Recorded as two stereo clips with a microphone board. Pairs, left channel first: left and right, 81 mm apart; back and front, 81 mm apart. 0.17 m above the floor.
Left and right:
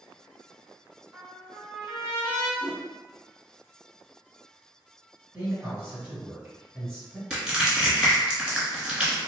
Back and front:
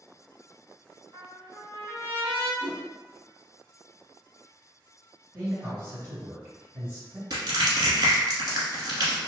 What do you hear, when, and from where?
1.1 s a trumpet: 50° right, 1.8 m
2.6 s a whoosh: 100° right, 1.6 m
5.3 s a man speaking: 45° right, 1.6 m
7.3 s crushing: 15° right, 1.1 m